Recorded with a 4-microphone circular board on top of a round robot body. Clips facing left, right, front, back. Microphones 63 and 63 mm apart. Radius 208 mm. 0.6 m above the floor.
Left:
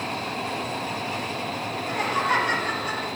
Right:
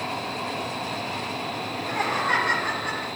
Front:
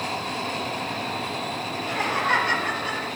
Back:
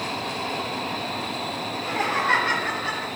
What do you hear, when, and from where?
1.7 s laughter: 125° right, 3 m; by 3.1 s 120° right, 2.5 m